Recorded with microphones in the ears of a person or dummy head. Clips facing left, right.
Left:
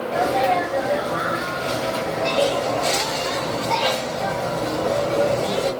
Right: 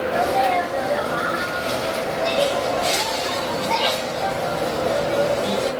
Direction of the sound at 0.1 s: Centre (ahead or behind).